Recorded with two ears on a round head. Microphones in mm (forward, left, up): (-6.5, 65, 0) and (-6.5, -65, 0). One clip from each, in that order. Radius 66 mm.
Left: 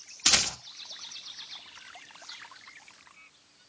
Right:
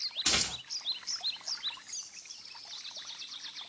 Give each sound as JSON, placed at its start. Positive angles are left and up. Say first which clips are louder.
{"t": 0.3, "sound": "a rattle", "louder": "left 6 dB", "side_deg": 40, "distance_m": 0.6}